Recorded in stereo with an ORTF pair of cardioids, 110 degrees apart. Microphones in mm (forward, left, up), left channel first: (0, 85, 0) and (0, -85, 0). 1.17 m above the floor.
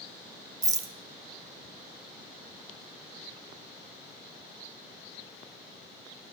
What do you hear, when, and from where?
0.6 s a rattle: 20° right, 0.6 m